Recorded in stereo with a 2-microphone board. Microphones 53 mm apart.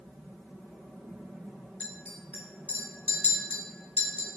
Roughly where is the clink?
Left.